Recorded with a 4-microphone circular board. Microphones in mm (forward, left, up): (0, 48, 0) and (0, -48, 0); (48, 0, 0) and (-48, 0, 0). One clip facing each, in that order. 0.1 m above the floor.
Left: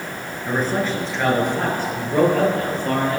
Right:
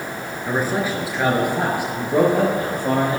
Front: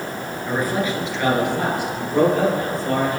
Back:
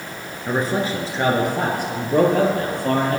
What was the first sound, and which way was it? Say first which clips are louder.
A man speaking: even, back 1 dB; 165° right.